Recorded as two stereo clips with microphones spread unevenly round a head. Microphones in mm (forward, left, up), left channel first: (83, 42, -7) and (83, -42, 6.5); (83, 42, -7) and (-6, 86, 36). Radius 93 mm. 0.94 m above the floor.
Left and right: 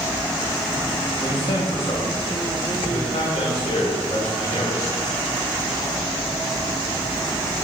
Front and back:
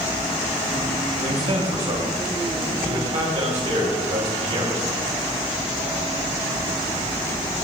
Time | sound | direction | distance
1.2 | a man speaking | 140° left | 4 m